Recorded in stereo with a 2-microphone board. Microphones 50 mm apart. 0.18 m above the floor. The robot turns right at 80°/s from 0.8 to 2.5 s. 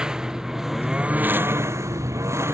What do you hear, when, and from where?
0.0 s a lawn mower: 15° right (ahead or behind); by 2.5 s 60° right (ahead or behind)